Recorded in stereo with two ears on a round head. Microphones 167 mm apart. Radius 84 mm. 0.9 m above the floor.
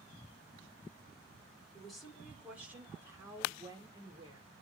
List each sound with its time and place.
1.7 s a woman speaking: centre (ahead or behind), 3 m; by 4.5 s 30° right (ahead or behind), 3 m